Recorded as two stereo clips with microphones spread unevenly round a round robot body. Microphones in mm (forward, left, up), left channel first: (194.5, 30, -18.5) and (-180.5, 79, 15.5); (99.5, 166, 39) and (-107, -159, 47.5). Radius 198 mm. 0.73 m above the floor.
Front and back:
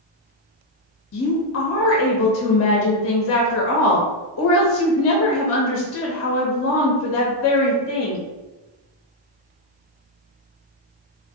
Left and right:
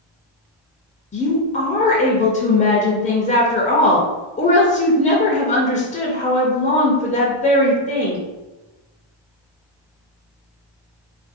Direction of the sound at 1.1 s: Straight ahead.